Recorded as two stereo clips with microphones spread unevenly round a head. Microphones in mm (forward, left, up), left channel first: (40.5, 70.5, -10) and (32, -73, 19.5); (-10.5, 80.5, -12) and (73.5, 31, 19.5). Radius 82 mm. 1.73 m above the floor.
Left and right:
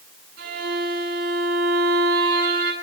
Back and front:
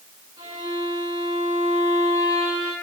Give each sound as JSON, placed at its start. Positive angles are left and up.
{"t": 0.4, "sound": "a violin", "azimuth_deg": -95, "distance_m": 7.5}